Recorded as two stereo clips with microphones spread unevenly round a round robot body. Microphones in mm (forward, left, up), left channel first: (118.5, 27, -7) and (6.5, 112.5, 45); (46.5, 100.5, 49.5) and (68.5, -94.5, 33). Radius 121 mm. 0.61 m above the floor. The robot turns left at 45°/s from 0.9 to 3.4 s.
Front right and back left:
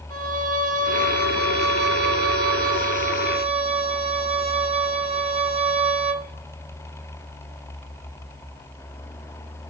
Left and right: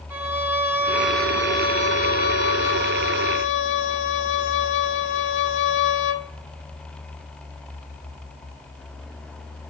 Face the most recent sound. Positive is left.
turn(degrees=85)